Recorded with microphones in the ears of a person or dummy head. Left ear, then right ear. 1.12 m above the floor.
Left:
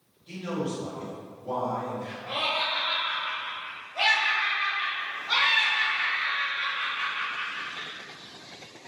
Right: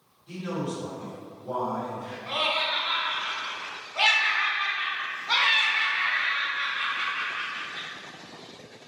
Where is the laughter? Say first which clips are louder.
Right 2 dB; 5° right (ahead or behind), 0.8 m.